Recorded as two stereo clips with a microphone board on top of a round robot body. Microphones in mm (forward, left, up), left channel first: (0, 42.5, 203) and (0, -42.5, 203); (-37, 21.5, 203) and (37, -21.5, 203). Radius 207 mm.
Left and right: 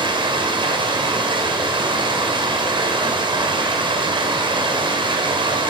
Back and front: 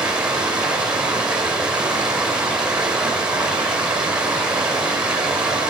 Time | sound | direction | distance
0.0 | running water | 110° right | 2 m